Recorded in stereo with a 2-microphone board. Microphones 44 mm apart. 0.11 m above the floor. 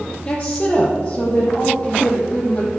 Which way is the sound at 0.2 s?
20° left (ahead or behind).